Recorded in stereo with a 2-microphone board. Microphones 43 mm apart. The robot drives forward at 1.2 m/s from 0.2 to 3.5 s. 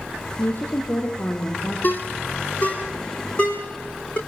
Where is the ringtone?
45° left (ahead or behind), 2.5 m; by 4.2 s 25° left (ahead or behind), 4 m.